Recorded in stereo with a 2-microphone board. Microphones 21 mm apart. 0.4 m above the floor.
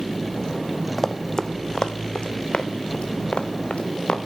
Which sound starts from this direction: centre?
Running footsteps, at 1.0 s.